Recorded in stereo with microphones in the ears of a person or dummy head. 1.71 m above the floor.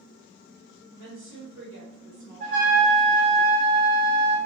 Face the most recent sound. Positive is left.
turn(degrees=-45)  # may be behind; listen again after turning